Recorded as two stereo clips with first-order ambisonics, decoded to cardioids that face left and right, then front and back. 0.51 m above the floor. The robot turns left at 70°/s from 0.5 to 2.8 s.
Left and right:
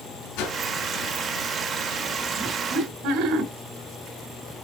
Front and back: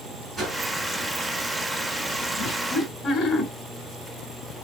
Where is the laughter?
30° right, 2 m; by 3.5 s 60° right, 2 m.